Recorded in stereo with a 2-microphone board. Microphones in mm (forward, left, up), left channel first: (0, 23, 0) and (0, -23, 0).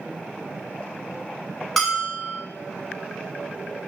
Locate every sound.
1.8 s a bell: centre (ahead or behind), 1.3 m